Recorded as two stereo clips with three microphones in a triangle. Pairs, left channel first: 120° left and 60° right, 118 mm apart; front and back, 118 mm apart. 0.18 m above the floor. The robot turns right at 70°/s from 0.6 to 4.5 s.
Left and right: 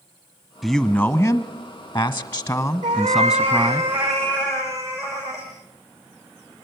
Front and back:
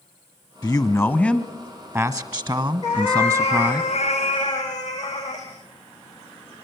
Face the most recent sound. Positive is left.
turn(degrees=55)